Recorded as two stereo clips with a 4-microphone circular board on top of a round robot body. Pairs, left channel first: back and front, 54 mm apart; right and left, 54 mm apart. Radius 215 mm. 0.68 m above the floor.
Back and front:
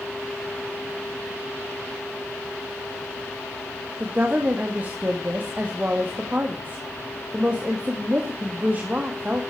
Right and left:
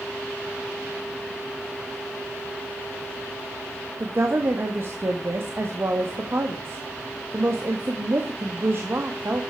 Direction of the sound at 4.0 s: 55° left.